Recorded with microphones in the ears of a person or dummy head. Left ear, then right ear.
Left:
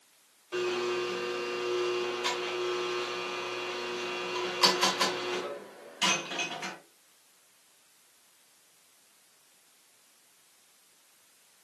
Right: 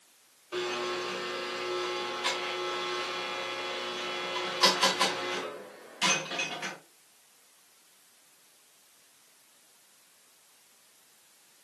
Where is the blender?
Centre (ahead or behind), 1.7 m.